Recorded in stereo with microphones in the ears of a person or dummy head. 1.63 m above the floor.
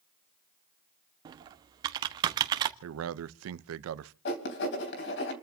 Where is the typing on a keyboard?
25° right (ahead or behind), 1.3 m.